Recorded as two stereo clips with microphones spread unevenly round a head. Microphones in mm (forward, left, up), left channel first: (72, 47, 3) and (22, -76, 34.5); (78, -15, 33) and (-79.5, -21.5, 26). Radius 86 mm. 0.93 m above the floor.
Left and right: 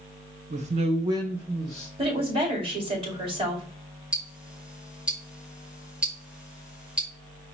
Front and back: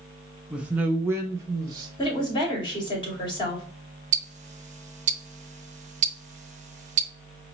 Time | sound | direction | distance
0.5 | a man speaking | 100° right | 0.8 m
2.0 | a woman speaking | 60° right | 2.5 m
4.1 | ticking | 155° left | 0.5 m